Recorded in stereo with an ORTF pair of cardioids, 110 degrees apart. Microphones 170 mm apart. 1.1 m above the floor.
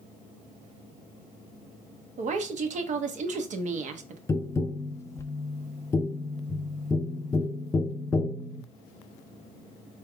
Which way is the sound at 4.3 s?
15° left.